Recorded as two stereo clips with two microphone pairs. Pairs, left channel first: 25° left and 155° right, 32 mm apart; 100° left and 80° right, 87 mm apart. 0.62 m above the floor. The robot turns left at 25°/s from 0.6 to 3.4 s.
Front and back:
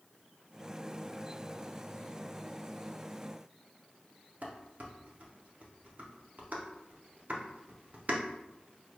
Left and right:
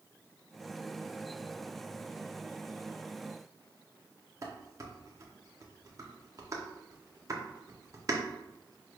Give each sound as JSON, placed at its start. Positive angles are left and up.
{"t": 4.4, "sound": "dishes clattering", "azimuth_deg": -125, "distance_m": 0.7}